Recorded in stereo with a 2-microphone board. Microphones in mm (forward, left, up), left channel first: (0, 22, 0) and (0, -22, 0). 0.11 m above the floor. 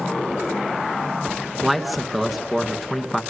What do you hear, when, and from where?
1.6 s a man speaking: centre (ahead or behind), 1.2 m